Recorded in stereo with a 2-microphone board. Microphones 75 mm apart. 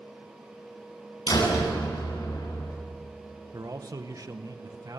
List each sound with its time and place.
1.3 s a door slam: 65° left (ahead or behind), 9 m
3.5 s a man speaking: 50° right (ahead or behind), 1.9 m